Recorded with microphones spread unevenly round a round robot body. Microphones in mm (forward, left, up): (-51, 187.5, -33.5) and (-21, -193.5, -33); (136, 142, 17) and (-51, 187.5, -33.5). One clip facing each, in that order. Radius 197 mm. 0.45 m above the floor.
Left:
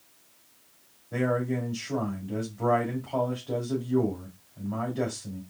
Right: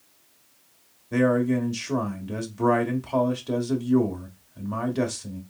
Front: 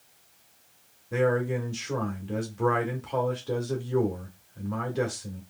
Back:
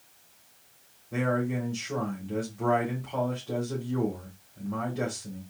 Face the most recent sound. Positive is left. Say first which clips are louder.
# right 7 dB, front 3 dB
turn(degrees=-50)